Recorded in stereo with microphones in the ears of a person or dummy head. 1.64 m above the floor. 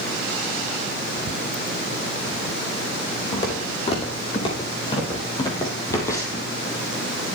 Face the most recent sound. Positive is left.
turn(degrees=20)  # may be behind; listen again after turning